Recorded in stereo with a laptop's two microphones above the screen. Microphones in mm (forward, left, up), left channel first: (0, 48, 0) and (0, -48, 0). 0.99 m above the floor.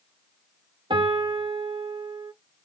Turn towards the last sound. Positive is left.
turn(degrees=-60)  # may be behind; listen again after turning